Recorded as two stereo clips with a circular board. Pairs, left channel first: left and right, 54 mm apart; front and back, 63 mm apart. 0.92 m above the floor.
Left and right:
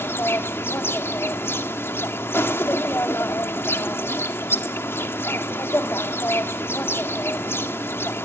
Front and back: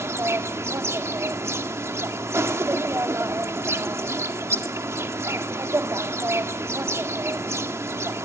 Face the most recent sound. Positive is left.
turn(degrees=135)